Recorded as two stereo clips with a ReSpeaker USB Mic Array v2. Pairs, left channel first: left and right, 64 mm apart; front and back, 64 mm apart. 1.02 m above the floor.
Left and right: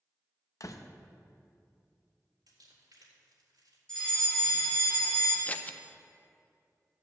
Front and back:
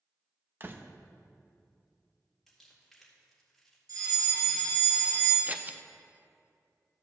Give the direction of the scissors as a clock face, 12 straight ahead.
7 o'clock.